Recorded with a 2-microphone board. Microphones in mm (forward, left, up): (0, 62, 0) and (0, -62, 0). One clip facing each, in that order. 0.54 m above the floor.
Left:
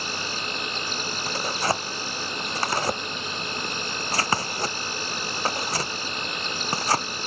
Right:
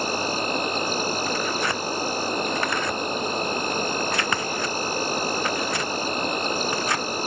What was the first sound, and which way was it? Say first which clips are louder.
An insect: right 8 dB; 45° right (ahead or behind).